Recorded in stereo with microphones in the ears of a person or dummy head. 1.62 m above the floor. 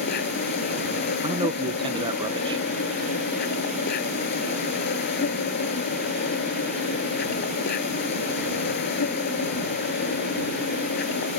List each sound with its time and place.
0.0 s an insect: 55° left (ahead or behind)
1.2 s a man speaking: 20° right (ahead or behind)